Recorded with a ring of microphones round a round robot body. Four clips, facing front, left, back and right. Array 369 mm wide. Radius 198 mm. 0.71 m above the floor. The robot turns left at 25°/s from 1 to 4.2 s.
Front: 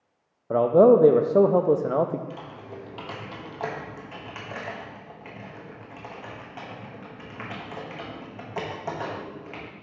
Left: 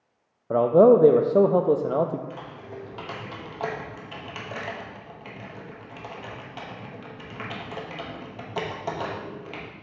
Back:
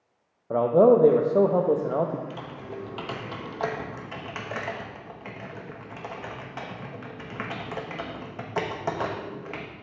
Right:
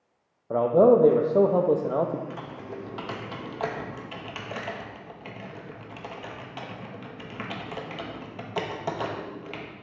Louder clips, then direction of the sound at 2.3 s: Right 1 dB, back 2 dB; 110° right.